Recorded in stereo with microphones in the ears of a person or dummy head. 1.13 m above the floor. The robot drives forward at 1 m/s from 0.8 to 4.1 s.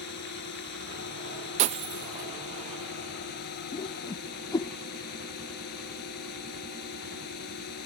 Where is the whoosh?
30° left (ahead or behind); by 4.7 s 20° left (ahead or behind).